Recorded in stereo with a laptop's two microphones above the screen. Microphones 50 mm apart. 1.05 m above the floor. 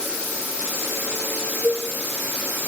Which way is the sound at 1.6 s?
55° right (ahead or behind).